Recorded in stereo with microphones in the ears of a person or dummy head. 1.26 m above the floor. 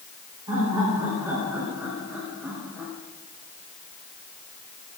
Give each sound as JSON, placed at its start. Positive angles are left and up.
{"t": 0.5, "sound": "laughter", "side_deg": -20, "distance_m": 5.5}